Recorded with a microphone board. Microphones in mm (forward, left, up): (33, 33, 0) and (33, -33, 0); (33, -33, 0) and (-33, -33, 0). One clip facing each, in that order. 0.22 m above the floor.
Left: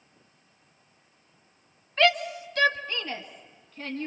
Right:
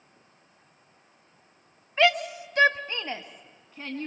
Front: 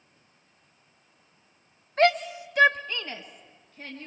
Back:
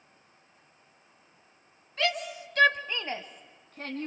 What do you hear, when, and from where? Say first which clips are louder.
2.0 s a shout: even, front 8 dB; 20° right, 1.7 m; by 4.1 s 160° right, 2.5 m